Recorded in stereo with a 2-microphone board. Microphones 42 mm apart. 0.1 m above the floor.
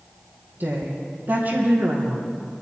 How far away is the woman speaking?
About 3.5 m.